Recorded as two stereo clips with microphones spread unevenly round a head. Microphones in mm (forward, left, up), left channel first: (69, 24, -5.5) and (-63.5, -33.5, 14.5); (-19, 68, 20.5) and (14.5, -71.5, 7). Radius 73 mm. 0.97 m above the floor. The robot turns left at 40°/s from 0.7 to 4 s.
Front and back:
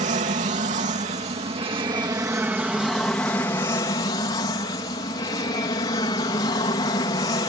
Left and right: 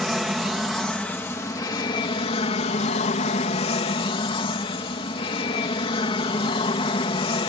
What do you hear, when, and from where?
0.0 s an aircraft: 165° right; by 7.5 s 65° left